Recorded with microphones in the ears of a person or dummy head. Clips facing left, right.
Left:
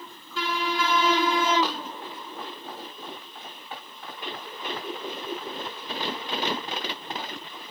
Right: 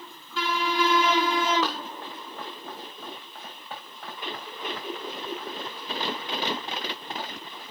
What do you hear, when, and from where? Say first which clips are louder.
1.6 s running footsteps: left 1 dB; 50° right (ahead or behind), 4.5 m; by 7.6 s 45° right (ahead or behind), 7.5 m